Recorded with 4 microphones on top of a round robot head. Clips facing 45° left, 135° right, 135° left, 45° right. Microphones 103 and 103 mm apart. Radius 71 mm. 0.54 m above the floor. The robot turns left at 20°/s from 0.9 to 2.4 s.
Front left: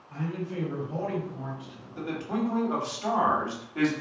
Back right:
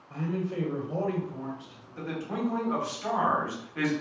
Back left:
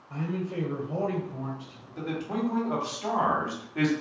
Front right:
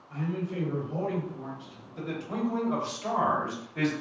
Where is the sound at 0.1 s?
175° right, 1.6 m; by 1.9 s 165° left, 1.6 m.